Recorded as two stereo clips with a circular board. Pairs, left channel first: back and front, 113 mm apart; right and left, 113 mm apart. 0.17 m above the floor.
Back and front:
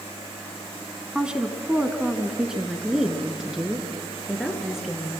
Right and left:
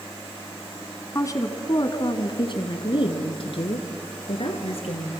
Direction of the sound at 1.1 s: 75° right.